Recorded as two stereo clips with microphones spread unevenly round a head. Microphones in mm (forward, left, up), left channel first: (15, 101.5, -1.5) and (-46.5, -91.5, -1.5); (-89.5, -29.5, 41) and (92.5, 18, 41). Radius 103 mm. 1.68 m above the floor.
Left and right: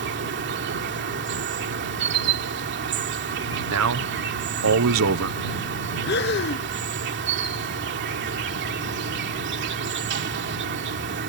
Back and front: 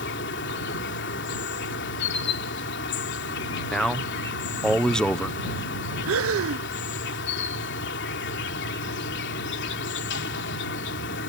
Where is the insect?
135° right.